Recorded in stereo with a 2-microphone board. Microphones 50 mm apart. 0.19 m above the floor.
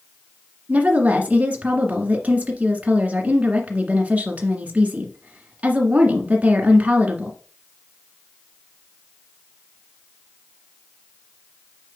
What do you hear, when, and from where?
0.7 s a woman speaking: 30° right (ahead or behind), 1.8 m